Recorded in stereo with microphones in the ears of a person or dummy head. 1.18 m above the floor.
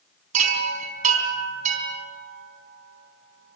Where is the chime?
45° right (ahead or behind), 3.5 m.